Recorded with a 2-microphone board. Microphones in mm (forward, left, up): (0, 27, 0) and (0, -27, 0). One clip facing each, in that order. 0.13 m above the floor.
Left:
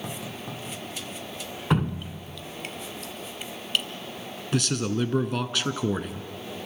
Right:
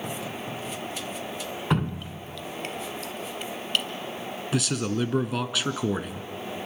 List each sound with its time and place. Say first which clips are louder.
1.7 s dripping: left 2 dB; centre (ahead or behind), 1.1 m
4.5 s a man speaking: left 1 dB; 5° right (ahead or behind), 1.2 m